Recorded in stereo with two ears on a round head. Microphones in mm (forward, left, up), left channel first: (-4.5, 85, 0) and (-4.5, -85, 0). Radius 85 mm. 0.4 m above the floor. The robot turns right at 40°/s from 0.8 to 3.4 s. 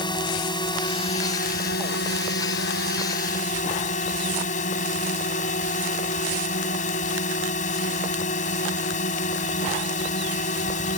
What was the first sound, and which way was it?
A drone, 30° left.